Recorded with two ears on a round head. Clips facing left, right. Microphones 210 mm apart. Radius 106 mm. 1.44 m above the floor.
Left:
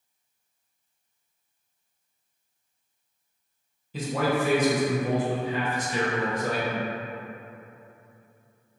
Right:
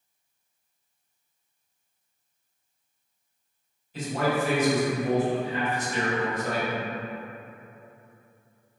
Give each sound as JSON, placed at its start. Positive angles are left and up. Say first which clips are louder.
{"t": 3.9, "sound": "a man speaking", "louder": "left 1 dB", "side_deg": 65, "distance_m": 0.8}